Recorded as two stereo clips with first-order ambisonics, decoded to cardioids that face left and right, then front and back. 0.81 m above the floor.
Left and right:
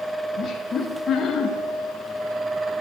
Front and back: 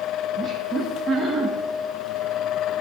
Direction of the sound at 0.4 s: 125° left.